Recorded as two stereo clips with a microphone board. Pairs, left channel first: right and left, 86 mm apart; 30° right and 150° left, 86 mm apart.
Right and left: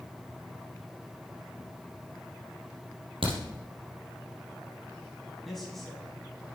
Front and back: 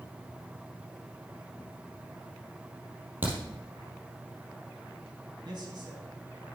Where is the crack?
85° left, 3 m.